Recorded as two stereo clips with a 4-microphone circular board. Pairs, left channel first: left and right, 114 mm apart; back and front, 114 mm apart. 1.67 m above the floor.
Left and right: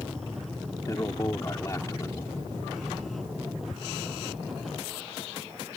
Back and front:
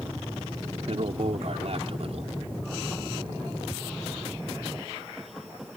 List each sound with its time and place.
0.9 s a man speaking: 30° left